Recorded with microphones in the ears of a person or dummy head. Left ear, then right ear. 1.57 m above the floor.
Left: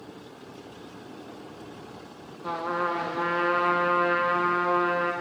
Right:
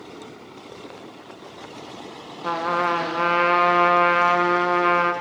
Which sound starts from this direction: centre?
A trumpet, at 2.4 s.